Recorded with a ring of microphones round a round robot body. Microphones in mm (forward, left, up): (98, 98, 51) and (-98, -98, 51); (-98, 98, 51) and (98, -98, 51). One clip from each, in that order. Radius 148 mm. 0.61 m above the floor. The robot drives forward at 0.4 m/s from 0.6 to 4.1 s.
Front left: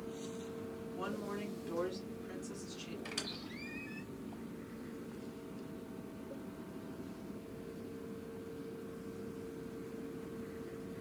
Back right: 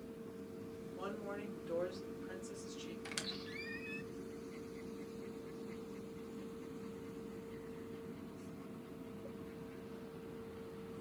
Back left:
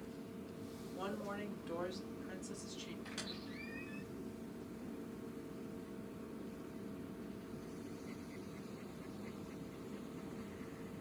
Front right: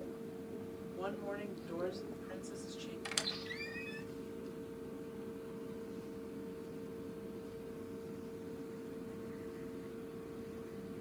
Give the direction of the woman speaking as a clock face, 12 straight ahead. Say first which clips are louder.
Front left 3 dB, front right 2 dB; 8 o'clock.